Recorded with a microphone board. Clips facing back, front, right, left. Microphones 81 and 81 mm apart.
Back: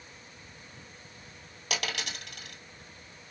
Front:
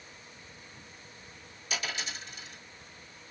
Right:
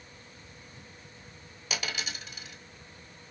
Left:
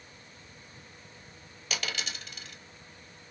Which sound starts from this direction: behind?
A dropped coin, at 1.7 s.